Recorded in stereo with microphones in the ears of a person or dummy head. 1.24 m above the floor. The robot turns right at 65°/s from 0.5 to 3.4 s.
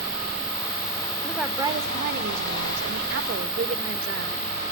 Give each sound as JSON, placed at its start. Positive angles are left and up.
{"t": 1.2, "sound": "a woman speaking", "azimuth_deg": 170, "distance_m": 1.7}